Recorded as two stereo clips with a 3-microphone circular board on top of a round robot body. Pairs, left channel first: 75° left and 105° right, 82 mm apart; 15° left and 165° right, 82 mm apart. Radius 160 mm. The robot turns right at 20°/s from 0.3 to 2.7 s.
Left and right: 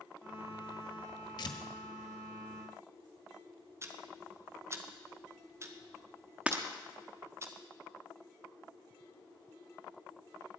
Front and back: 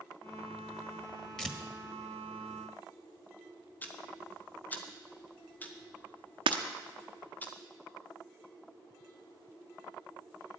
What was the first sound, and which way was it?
Tearing paper, 95° left.